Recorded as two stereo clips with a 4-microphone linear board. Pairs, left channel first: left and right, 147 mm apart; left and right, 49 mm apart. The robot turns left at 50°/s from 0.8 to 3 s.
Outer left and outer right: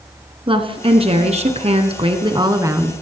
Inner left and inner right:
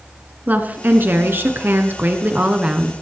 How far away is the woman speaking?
About 1.6 m.